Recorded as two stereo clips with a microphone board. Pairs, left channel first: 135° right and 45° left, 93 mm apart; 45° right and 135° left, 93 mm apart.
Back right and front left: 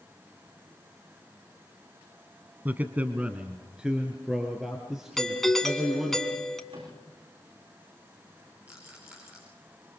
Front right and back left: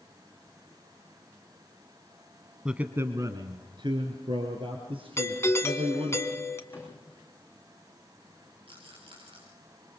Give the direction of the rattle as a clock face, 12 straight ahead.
8 o'clock.